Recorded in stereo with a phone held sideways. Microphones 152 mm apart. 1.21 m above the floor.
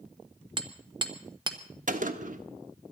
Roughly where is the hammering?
Right.